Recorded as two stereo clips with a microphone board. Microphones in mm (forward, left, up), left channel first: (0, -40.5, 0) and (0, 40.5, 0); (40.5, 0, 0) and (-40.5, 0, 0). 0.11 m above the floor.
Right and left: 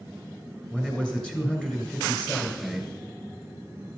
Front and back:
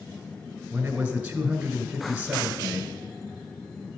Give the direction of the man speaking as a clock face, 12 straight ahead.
5 o'clock.